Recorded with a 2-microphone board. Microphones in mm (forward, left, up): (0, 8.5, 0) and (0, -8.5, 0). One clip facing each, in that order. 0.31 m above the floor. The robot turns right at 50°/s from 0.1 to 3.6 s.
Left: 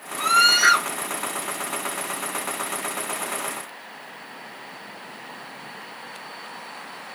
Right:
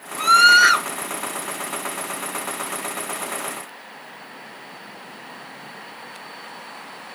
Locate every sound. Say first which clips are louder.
0.2 s a scream: right 5 dB; 25° right (ahead or behind), 1.6 m; by 0.9 s 10° right (ahead or behind), 1.6 m